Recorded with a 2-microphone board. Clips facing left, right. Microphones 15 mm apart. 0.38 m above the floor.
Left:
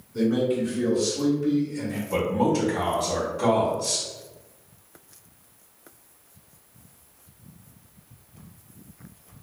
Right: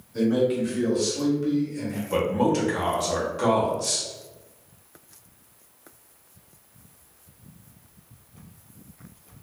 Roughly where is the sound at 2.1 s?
Right.